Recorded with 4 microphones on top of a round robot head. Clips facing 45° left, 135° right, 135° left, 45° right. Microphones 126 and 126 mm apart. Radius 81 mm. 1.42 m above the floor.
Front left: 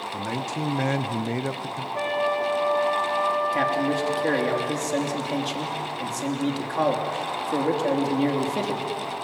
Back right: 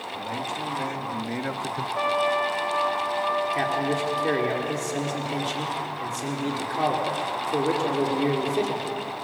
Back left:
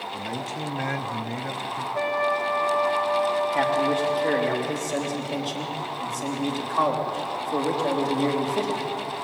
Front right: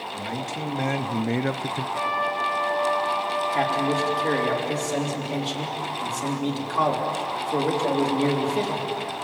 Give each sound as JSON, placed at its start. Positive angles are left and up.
{"t": 0.1, "sound": "a man speaking", "azimuth_deg": 50, "distance_m": 1.3}
{"t": 1.9, "sound": "a trumpet", "azimuth_deg": 95, "distance_m": 6.0}
{"t": 3.5, "sound": "a man speaking", "azimuth_deg": 50, "distance_m": 3.5}